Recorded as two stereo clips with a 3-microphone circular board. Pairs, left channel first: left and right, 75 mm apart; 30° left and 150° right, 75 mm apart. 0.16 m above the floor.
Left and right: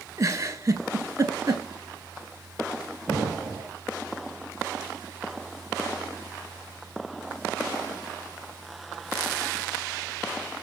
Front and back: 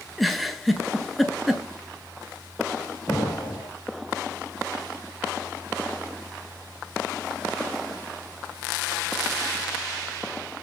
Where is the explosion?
20° right, 3.5 m.